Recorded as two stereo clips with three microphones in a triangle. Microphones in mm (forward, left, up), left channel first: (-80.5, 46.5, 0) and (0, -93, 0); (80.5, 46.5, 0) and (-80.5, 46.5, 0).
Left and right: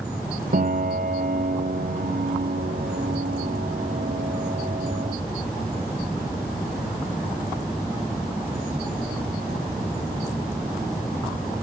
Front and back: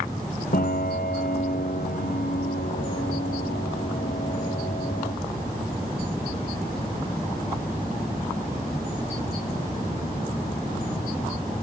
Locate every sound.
0.5 s a piano: 30° right, 2 m